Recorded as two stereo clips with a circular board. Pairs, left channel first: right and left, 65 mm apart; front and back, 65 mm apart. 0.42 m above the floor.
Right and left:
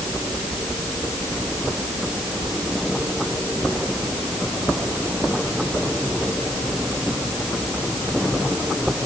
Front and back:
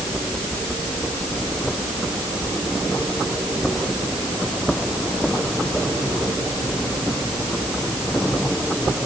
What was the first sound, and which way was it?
Only background noise.